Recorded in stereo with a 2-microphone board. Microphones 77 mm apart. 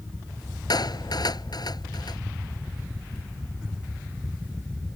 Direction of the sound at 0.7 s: 60° left (ahead or behind).